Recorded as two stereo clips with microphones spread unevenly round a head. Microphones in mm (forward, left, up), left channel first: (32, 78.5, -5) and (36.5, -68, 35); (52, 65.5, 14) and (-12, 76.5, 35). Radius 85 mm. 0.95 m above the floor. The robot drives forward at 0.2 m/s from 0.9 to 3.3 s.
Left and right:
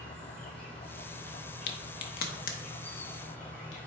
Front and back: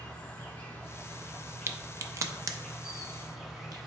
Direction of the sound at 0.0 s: 30° left.